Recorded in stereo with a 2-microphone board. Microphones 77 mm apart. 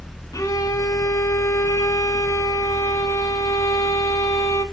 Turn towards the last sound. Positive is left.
turn(degrees=45)  # may be behind; listen again after turning